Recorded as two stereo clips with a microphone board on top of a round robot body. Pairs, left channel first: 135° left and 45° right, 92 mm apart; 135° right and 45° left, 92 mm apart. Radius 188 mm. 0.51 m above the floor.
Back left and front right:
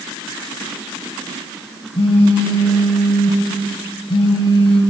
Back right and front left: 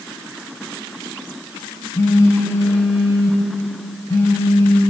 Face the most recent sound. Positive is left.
turn(degrees=165)